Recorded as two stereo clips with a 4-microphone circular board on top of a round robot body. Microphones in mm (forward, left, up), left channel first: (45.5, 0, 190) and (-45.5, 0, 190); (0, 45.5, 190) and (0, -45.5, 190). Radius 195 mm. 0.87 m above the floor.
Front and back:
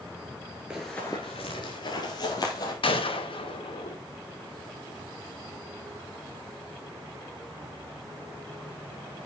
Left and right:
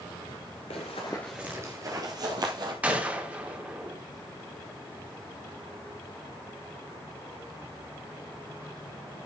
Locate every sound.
0.7 s running footsteps: 100° left, 1.0 m; by 2.7 s 45° right, 2 m
2.8 s a gunshot: 15° right, 2.5 m